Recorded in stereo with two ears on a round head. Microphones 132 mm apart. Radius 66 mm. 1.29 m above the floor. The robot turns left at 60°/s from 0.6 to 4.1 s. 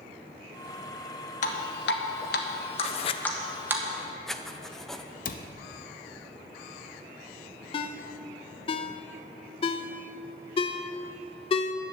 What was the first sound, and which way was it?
Dripping, 55° left (ahead or behind).